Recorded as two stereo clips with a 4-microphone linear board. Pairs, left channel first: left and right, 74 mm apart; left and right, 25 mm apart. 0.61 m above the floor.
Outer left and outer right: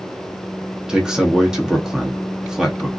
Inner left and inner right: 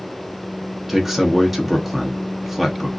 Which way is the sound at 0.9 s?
10° right (ahead or behind).